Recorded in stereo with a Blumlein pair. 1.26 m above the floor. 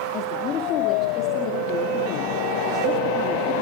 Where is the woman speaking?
30° left, 2.5 m.